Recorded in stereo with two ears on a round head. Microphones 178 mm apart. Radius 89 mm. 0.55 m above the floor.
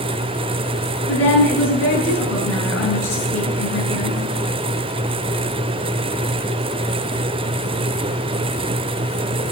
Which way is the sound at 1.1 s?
70° left (ahead or behind).